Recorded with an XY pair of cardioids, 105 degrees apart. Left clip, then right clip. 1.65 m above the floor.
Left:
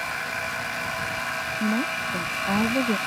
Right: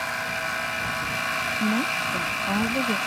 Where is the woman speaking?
5° left; by 3.0 s 30° left.